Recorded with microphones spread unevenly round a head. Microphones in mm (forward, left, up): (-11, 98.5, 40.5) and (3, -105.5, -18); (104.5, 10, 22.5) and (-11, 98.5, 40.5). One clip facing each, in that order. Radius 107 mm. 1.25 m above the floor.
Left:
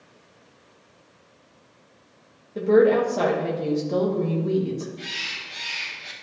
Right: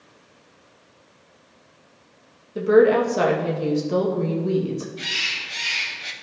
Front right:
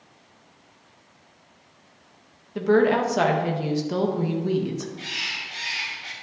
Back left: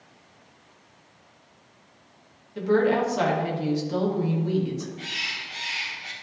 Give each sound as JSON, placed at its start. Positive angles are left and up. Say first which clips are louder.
{"t": 2.5, "sound": "a woman speaking", "louder": "right 2 dB, front right 2 dB", "azimuth_deg": -10, "distance_m": 1.7}
{"t": 5.0, "sound": "a bird", "louder": "right 2 dB, front right 1 dB", "azimuth_deg": -110, "distance_m": 1.5}